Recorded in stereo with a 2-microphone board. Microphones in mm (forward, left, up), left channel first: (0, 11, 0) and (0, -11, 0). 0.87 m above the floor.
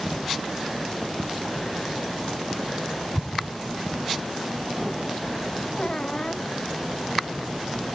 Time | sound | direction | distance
3.1 | an explosion | 55° left (ahead or behind) | ?
5.8 | a squeak | 35° left (ahead or behind) | ?